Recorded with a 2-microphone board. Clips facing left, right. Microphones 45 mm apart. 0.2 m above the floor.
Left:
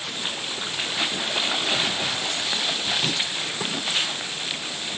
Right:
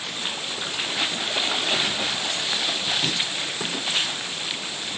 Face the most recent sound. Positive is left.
No sound to turn to.